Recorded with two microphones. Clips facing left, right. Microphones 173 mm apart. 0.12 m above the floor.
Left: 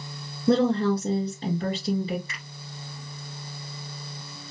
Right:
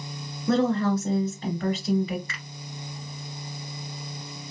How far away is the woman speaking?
About 1.4 m.